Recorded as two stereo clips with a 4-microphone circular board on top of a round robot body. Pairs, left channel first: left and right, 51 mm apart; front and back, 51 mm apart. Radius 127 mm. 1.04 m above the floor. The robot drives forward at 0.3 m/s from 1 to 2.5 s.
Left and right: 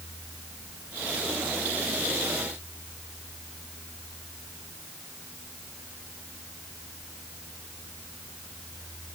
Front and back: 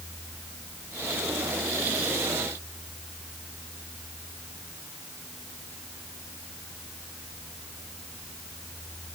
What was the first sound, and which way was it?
Only background noise.